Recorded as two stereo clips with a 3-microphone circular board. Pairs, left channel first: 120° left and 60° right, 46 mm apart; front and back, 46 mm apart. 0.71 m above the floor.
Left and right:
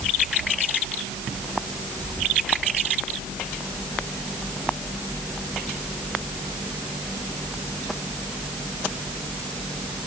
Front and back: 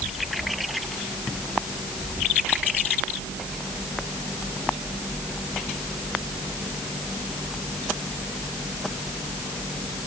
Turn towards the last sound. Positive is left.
No sound to turn to.